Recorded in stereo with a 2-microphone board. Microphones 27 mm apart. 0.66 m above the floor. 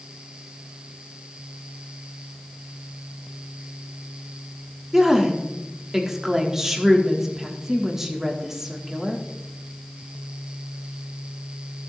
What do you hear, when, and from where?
4.9 s a woman speaking: 10° right (ahead or behind), 1.7 m